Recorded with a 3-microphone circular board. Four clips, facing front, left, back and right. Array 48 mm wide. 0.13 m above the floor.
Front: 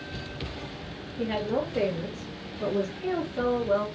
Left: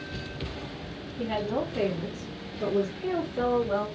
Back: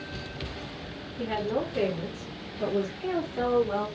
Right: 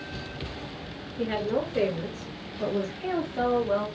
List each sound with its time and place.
1.2 s a woman speaking: 70° right, 1.9 m; by 3.9 s 105° right, 3 m